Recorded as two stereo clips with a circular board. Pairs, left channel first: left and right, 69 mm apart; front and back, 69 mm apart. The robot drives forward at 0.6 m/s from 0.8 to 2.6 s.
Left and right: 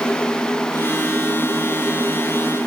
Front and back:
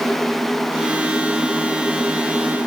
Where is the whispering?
I don't hear whispering.